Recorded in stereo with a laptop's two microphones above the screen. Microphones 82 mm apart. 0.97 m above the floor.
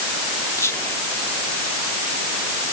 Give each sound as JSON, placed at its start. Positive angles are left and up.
{"t": 0.6, "sound": "whispering", "side_deg": 35}